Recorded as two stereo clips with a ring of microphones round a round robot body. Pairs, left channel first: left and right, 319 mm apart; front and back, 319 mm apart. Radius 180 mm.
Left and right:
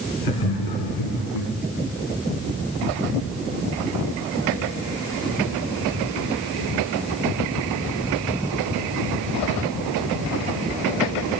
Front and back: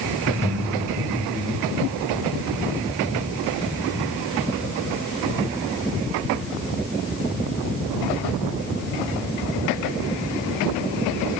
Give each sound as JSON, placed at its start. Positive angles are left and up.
{"t": 0.2, "sound": "laughter", "azimuth_deg": 95, "distance_m": 7.0}